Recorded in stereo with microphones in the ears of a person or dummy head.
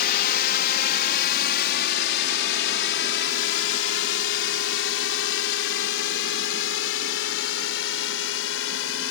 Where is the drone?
50° left (ahead or behind); by 9.1 s 80° left.